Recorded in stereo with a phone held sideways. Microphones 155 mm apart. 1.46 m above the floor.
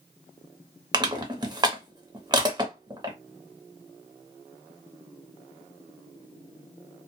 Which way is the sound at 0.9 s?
25° right (ahead or behind).